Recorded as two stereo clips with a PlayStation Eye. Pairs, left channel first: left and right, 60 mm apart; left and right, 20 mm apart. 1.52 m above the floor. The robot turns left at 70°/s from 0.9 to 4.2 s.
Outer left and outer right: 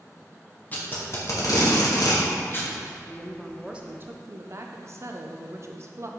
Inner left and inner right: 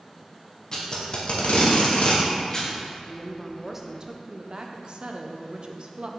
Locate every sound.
0.7 s tape being pulled: 30° left (ahead or behind), 1.2 m; by 2.7 s 20° left (ahead or behind), 1.2 m
3.1 s a woman speaking: 30° left, 0.6 m; by 6.1 s 50° right, 0.6 m